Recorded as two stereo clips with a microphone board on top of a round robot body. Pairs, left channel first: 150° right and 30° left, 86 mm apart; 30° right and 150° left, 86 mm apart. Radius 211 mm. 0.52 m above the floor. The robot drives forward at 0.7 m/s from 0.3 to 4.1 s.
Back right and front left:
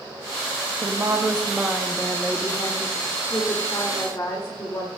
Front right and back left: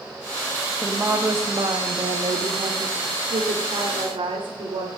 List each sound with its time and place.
0.8 s a woman speaking: 75° left, 1.2 m; by 4.9 s 155° left, 2.5 m